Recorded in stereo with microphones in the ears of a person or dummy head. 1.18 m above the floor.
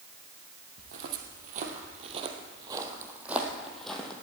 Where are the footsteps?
55° right (ahead or behind), 1.9 m; by 4.1 s 10° left (ahead or behind), 2.5 m.